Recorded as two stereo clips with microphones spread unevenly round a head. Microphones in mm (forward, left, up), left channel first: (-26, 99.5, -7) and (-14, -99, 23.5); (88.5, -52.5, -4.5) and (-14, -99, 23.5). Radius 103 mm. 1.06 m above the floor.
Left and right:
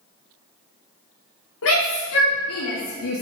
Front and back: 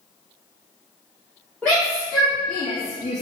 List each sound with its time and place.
1.6 s a shout: 115° left, 3 m; by 3.2 s 80° left, 1.0 m